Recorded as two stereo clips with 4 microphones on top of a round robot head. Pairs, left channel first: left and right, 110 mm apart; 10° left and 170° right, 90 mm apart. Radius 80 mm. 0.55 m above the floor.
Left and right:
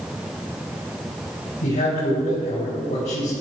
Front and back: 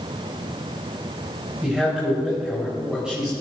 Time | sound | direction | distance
1.6 | a man speaking | 110° left | 4 m